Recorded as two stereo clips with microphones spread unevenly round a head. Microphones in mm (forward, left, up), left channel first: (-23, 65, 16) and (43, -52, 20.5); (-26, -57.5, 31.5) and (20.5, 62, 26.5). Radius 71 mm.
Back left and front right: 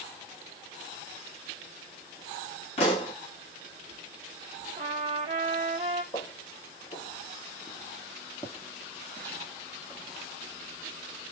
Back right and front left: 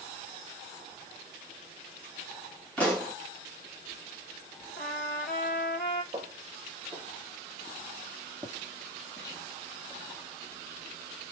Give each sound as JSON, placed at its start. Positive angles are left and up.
{"t": 2.8, "sound": "a pop", "azimuth_deg": 170, "distance_m": 2.5}
{"t": 4.8, "sound": "a trumpet", "azimuth_deg": -105, "distance_m": 1.9}
{"t": 6.1, "sound": "footsteps", "azimuth_deg": 115, "distance_m": 1.8}